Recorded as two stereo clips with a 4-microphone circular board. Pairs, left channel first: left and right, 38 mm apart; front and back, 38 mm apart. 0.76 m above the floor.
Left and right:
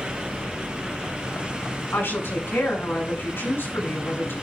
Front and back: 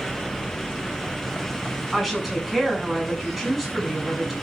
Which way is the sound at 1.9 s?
95° left.